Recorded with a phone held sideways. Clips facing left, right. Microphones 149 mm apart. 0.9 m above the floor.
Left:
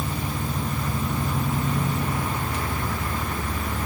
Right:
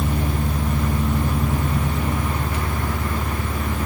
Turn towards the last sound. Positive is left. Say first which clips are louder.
# right 5 dB
turn(degrees=-80)